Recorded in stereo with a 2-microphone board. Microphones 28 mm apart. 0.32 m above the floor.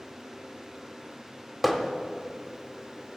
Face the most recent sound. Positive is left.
turn(degrees=-5)  # may be behind; listen again after turning